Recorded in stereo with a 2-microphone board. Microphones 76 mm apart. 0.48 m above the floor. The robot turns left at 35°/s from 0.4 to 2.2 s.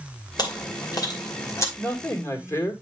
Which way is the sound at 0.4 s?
60° left (ahead or behind).